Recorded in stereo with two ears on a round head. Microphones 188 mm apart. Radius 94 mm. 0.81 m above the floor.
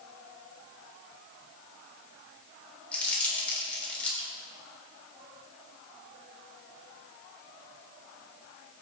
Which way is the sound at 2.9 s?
5° left (ahead or behind).